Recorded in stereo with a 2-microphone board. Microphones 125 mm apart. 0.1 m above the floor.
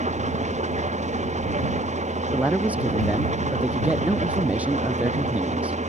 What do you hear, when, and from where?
0.0 s an engine running: 65° right (ahead or behind)
2.3 s a man speaking: 10° right (ahead or behind)